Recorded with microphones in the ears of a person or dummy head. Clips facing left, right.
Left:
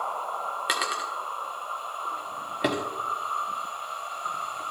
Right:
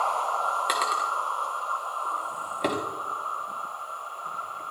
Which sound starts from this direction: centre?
A drawer, at 0.7 s.